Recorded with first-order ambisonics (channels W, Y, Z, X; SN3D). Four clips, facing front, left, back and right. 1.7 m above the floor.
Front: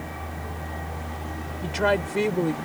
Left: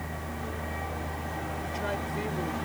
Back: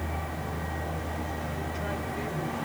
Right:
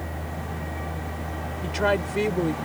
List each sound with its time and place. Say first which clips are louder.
1.6 s a woman speaking: right 12 dB, front 10 dB; 40° right